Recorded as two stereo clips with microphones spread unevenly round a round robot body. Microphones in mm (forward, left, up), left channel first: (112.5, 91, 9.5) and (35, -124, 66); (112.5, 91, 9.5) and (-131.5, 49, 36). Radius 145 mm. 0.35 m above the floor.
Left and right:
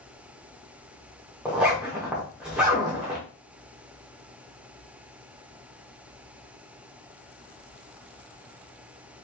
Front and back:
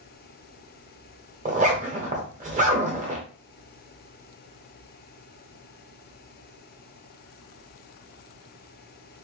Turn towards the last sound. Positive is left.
turn(degrees=145)